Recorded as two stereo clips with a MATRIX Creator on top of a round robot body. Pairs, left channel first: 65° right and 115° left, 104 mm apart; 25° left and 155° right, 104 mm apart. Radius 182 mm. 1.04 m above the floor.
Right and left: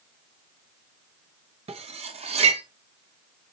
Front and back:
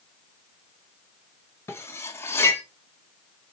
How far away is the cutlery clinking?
About 0.6 m.